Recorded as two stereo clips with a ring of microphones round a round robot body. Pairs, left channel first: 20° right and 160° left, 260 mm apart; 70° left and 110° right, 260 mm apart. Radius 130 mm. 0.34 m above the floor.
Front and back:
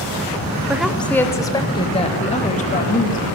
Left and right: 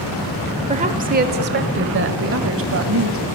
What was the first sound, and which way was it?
A woman speaking, 125° right.